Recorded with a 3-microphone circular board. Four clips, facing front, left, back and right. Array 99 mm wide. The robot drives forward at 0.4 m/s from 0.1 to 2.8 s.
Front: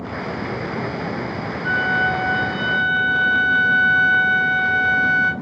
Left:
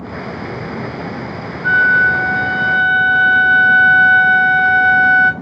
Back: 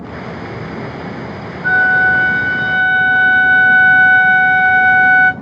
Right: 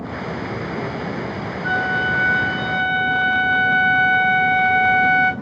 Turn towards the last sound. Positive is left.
turn(degrees=165)